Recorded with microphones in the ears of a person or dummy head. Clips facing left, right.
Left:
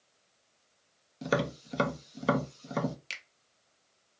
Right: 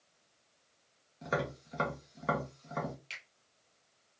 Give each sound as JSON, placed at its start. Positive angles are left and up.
{"t": 1.2, "sound": "tapping", "side_deg": 45, "distance_m": 0.6}
{"t": 3.1, "sound": "a finger snap", "side_deg": 70, "distance_m": 0.7}